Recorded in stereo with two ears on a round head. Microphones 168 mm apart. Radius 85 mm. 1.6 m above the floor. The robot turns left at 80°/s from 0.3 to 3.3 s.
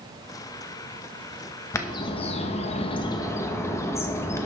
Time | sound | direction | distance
1.7 | a bird | 155° left | 0.9 m